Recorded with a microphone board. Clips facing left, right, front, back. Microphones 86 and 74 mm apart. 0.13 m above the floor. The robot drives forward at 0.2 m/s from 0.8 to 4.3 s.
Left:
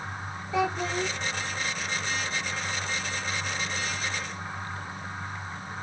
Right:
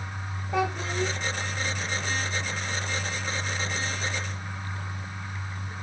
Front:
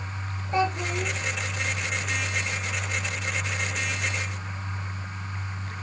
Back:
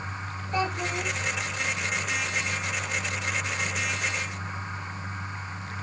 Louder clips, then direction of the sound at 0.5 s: Even, front 3 dB; 60° right.